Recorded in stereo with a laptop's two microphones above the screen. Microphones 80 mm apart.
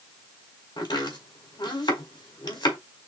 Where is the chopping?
70° left (ahead or behind), 1.6 m.